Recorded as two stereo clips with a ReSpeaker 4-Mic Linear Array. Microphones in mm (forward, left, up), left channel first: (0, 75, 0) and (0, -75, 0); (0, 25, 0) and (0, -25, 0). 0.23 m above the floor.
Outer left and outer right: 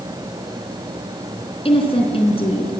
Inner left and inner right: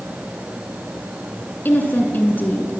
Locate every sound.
1.6 s a woman speaking: 40° left (ahead or behind), 3 m